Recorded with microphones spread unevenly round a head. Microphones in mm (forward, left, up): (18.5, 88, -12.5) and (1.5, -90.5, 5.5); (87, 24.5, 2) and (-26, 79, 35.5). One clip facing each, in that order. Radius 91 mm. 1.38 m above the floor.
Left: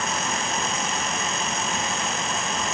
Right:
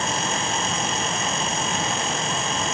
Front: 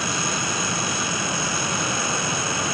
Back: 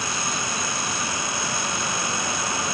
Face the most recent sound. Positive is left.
No sound to turn to.